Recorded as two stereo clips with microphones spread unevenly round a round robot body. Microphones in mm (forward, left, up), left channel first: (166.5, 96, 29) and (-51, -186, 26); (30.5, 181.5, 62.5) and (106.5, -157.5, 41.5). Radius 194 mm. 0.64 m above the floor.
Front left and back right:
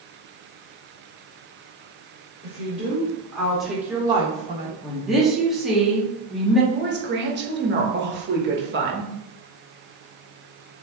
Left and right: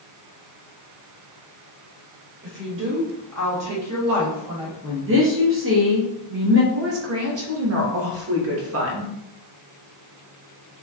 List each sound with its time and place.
2.4 s a woman speaking: 20° right, 1.9 m; by 4.7 s 65° right, 1.3 m
4.8 s a woman speaking: 40° right, 0.9 m
6.7 s a woman speaking: 85° right, 1.0 m